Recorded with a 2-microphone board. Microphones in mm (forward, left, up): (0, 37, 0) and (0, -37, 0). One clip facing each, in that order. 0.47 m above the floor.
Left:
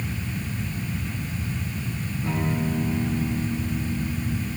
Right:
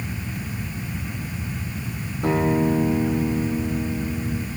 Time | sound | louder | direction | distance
2.2 | a guitar | right 7 dB | 70° right (ahead or behind) | 3.5 m